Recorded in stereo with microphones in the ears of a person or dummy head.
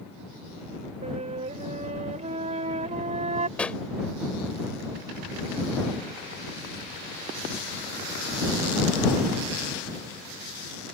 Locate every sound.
1.0 s a flute: 30° right (ahead or behind)
3.6 s a pop: 10° left (ahead or behind)